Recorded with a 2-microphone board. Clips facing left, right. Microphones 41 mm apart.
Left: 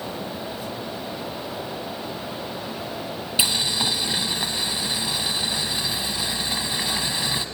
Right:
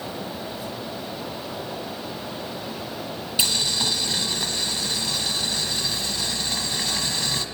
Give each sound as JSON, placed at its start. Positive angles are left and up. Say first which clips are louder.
{"t": 3.4, "sound": "boiling", "louder": "left 1 dB", "side_deg": 15, "distance_m": 1.4}